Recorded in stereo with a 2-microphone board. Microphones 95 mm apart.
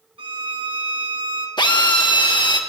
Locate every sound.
0.2 s a violin: 70° right (ahead or behind), 1.8 m
1.6 s a drill: 55° left (ahead or behind), 1.6 m